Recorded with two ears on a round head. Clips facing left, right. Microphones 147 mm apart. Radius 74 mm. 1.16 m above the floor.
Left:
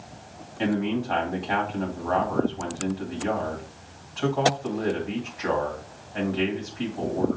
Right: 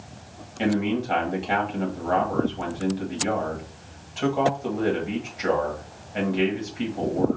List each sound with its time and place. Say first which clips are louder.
0.6 s a man speaking: right 2 dB; 25° right (ahead or behind), 1.8 m